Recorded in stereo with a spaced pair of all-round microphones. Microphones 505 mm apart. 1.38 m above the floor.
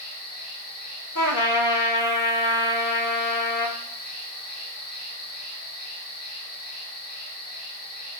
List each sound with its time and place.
0.0 s an insect: 40° left (ahead or behind), 1.4 m
1.1 s a trumpet: 40° left (ahead or behind), 0.7 m